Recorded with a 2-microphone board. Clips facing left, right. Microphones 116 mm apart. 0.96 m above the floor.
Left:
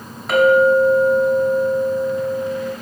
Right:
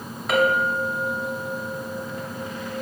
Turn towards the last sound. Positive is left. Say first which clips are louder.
# left 9 dB
turn(degrees=0)  # may be behind; listen again after turning